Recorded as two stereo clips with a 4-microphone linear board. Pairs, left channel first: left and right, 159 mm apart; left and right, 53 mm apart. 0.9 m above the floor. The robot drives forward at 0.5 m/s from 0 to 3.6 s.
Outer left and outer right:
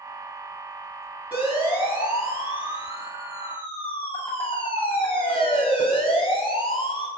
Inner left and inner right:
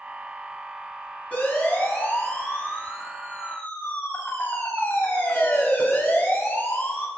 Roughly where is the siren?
Left.